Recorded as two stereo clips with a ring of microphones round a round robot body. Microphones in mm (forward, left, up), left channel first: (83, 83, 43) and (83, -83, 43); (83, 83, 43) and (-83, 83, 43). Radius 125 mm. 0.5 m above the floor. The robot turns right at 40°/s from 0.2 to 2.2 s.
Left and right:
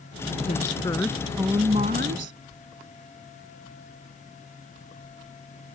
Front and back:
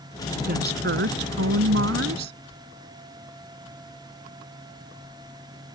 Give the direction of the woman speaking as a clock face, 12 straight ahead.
7 o'clock.